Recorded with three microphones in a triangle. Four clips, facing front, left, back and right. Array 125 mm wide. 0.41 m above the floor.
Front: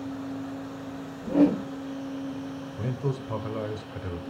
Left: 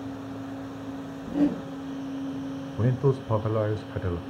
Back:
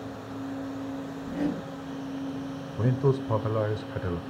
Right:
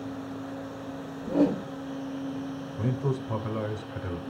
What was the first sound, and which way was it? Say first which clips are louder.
A whoosh: right 1 dB, front 10 dB; 40° right.